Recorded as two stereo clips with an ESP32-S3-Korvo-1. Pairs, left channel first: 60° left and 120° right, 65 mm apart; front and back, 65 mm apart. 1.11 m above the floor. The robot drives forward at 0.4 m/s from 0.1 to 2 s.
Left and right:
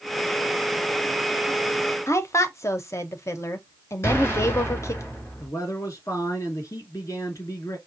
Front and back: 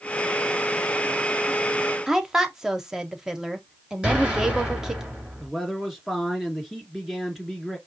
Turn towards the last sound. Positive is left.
turn(degrees=95)